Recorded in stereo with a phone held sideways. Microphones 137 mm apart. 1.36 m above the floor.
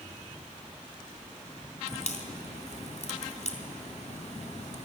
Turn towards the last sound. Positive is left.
turn(degrees=60)  # may be behind; listen again after turning